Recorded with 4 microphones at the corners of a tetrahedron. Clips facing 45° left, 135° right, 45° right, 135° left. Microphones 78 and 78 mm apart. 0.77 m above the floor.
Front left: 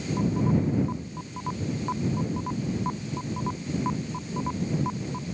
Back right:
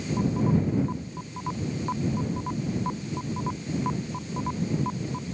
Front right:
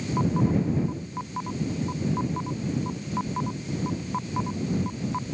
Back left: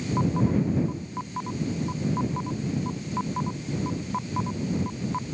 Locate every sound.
Only background noise.